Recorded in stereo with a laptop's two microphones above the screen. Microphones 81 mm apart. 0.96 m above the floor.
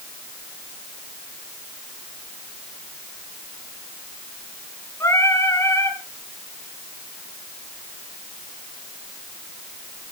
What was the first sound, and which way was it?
Singing, 35° left (ahead or behind).